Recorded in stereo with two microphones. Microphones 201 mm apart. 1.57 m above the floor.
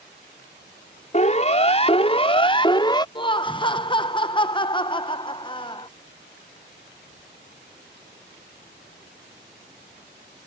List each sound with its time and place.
1.1 s a siren: 35° left (ahead or behind); by 3.0 s 20° left (ahead or behind)
3.1 s laughter: 25° left (ahead or behind)